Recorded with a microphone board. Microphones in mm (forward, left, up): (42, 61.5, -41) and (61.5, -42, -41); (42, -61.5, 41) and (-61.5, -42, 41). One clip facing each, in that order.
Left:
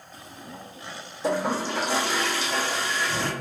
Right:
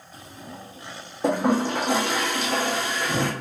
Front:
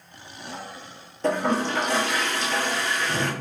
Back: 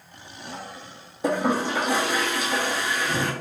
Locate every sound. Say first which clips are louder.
1.2 s a toilet flushing: right 4 dB, even; 110° right, 0.7 m